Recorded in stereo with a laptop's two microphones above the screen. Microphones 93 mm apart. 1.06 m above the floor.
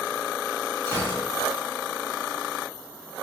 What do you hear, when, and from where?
0.9 s a gunshot: 30° left (ahead or behind), 2 m